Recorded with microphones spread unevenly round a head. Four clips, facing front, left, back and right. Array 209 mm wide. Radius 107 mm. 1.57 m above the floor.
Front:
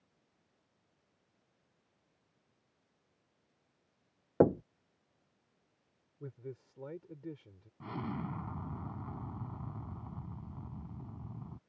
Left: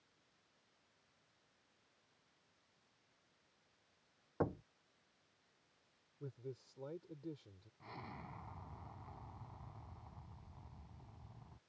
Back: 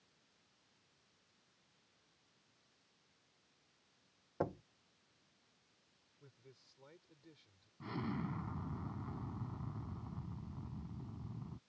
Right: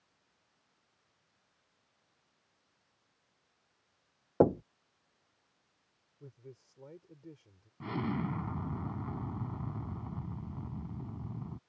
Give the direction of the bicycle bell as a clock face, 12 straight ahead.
I don't hear a bicycle bell.